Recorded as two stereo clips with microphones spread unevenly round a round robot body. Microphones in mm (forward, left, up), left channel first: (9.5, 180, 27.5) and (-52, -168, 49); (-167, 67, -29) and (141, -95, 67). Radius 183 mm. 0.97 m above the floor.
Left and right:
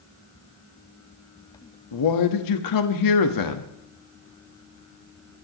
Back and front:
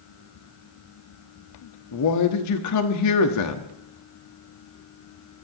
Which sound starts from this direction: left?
A man speaking, at 1.9 s.